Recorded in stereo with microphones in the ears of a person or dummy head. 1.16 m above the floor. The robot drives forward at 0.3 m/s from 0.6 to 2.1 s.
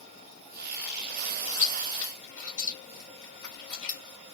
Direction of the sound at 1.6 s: 35° left (ahead or behind).